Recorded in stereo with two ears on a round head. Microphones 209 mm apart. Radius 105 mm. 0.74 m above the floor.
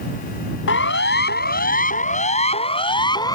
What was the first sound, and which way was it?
A siren, 55° left (ahead or behind).